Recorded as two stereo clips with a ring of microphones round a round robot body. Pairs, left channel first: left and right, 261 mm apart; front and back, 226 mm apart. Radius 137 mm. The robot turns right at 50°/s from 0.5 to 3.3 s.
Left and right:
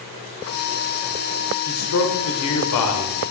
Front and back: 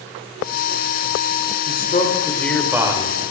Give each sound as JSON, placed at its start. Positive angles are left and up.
{"t": 1.7, "sound": "a man speaking", "azimuth_deg": 45, "distance_m": 1.9}